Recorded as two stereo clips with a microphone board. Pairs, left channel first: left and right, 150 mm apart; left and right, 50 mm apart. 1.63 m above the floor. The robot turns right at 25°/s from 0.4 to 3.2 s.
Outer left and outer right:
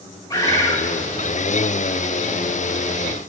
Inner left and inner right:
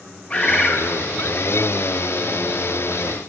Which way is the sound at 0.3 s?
25° left (ahead or behind).